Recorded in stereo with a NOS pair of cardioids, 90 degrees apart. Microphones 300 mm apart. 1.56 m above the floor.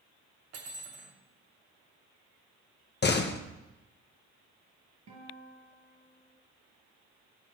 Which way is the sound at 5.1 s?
65° right.